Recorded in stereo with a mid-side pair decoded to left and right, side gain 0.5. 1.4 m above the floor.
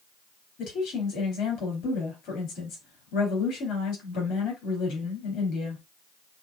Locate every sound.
0.6 s a woman speaking: 65° left, 3.5 m